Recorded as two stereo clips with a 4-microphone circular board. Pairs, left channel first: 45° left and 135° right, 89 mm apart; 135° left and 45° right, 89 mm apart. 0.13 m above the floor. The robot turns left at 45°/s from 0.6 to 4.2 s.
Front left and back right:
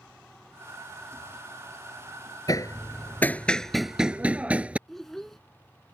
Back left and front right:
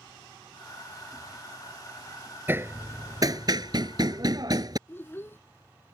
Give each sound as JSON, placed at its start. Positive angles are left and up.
{"t": 2.5, "sound": "hammering", "azimuth_deg": 15}
{"t": 4.9, "sound": "a child speaking", "azimuth_deg": 130}